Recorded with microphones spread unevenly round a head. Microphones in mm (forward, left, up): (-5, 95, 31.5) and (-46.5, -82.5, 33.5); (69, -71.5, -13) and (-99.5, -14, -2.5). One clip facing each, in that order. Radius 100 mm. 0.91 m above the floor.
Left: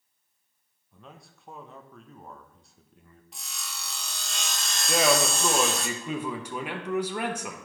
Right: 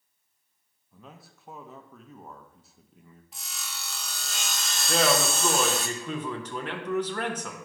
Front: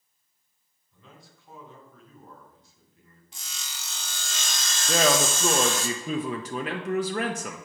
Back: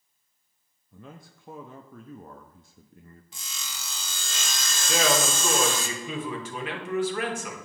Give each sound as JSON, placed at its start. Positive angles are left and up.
{"t": 0.9, "sound": "a man speaking", "azimuth_deg": 170, "distance_m": 0.7}
{"t": 3.3, "sound": "sawing", "azimuth_deg": 170, "distance_m": 0.7}
{"t": 4.9, "sound": "a man speaking", "azimuth_deg": 5, "distance_m": 0.9}